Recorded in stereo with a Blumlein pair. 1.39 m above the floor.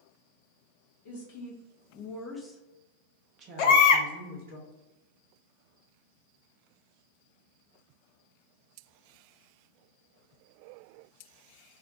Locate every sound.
1.1 s a woman speaking: 55° left, 1.0 m; by 4.6 s 55° right, 1.3 m
3.6 s a baby crying: 45° left, 0.5 m